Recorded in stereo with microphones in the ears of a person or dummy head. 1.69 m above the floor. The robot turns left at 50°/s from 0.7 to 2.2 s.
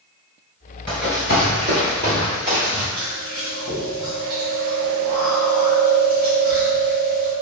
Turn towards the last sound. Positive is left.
turn(degrees=-25)  # may be behind; listen again after turning